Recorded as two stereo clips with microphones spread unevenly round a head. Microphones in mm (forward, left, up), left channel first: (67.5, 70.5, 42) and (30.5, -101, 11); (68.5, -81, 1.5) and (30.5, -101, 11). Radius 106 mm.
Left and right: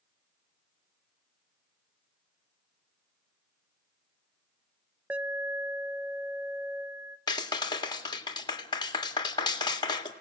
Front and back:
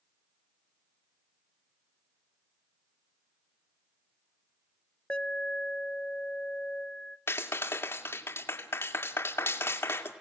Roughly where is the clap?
Ahead.